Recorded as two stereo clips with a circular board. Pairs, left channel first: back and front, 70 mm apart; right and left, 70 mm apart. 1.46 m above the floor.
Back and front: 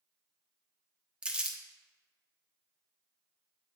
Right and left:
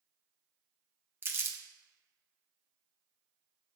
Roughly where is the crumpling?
Ahead left.